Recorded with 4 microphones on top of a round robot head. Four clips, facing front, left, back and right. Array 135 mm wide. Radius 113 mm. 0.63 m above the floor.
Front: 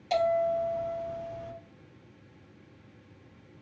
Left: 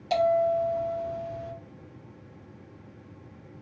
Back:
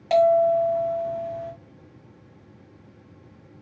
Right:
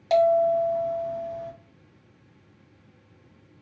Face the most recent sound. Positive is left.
turn(degrees=-150)